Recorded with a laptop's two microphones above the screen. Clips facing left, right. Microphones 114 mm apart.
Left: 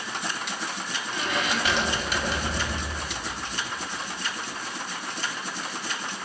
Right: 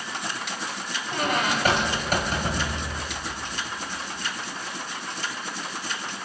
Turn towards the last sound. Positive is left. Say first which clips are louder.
# right 4 dB
turn(degrees=-45)  # may be behind; listen again after turning